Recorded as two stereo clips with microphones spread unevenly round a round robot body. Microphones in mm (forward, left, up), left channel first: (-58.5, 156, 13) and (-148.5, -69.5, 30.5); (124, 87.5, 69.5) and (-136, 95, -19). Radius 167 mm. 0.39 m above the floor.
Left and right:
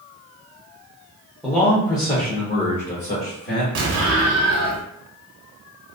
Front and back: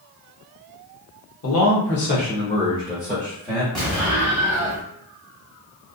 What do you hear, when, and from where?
1.4 s a man speaking: 15° right, 0.9 m; by 3.6 s 105° left, 1.4 m
3.8 s an explosion: 105° right, 0.7 m